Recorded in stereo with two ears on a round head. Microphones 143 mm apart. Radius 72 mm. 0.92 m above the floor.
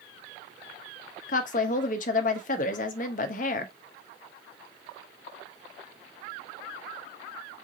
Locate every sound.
1.3 s a woman speaking: 50° left (ahead or behind), 0.8 m